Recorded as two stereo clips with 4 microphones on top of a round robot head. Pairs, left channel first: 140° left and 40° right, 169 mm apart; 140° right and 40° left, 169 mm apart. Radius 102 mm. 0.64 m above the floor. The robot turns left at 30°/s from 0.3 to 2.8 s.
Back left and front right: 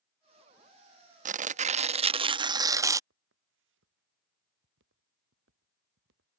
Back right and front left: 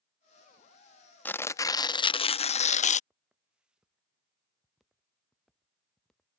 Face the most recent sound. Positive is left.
turn(degrees=-50)